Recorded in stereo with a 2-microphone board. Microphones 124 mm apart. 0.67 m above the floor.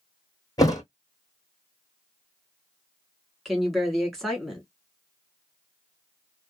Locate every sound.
0.6 s a thud: 30° left (ahead or behind), 1.1 m
3.5 s a woman speaking: centre (ahead or behind), 1.4 m